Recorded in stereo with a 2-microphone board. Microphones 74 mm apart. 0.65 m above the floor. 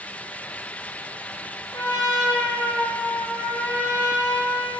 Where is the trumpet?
45° left (ahead or behind), 0.7 m.